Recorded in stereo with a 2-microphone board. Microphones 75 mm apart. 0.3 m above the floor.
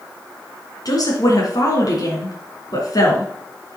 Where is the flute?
No flute in this recording.